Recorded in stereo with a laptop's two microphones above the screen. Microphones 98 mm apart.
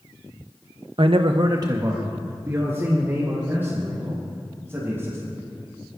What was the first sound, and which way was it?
A man speaking, 60° right (ahead or behind).